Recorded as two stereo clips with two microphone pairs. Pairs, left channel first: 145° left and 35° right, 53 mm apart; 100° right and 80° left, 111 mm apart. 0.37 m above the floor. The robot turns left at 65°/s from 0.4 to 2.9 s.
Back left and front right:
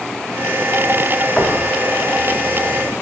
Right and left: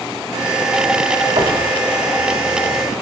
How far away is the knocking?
About 1.9 m.